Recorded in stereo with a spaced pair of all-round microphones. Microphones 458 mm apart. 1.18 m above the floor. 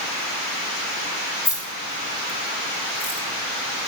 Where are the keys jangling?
50° left (ahead or behind), 3 m.